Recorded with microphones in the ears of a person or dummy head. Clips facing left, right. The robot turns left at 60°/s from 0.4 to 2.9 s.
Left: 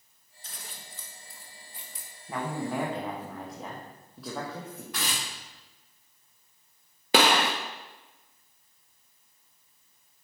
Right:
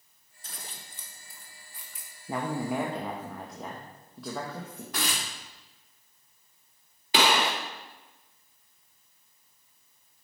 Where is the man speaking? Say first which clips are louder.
Right 2 dB; 145° right, 0.8 m; by 4.8 s straight behind, 0.8 m.